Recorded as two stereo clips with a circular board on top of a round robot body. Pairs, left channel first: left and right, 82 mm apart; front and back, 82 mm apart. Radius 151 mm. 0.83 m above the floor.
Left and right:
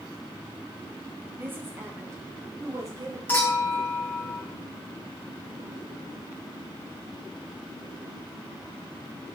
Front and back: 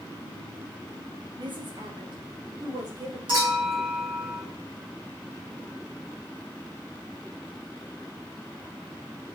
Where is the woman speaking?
155° right, 1.9 m; by 3.2 s 140° right, 2.5 m.